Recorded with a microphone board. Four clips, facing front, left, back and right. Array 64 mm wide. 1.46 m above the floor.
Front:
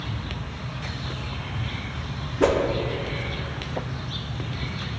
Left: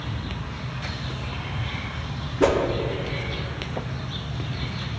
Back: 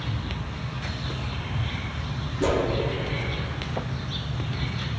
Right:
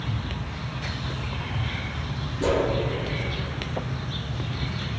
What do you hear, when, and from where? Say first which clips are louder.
2.4 s a whoosh: left 4 dB, front 4 dB; 40° left, 0.6 m